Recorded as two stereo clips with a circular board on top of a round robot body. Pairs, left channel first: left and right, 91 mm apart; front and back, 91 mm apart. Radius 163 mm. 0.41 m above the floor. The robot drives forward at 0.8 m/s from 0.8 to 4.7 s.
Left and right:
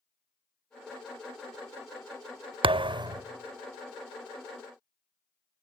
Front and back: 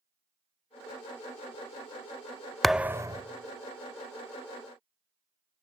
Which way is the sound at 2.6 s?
90° right.